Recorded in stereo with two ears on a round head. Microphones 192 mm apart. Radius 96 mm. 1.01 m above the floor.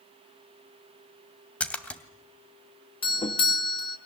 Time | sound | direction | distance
1.6 | a splash | 5° left (ahead or behind) | 2.5 m
3.0 | a doorbell | 25° left (ahead or behind) | 1.9 m